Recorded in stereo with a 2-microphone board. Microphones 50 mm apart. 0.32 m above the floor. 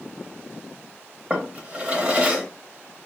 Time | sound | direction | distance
1.3 | a drawer | 25° right (ahead or behind) | 0.9 m